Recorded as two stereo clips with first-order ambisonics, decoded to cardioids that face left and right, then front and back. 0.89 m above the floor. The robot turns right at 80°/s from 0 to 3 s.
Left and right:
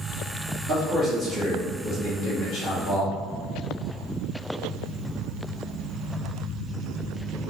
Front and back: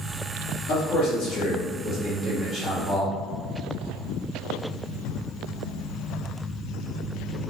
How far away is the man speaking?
About 1.7 m.